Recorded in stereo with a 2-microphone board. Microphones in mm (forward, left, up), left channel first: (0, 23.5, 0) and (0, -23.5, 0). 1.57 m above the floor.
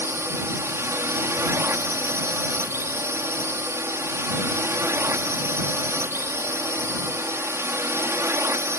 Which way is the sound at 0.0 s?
60° right (ahead or behind).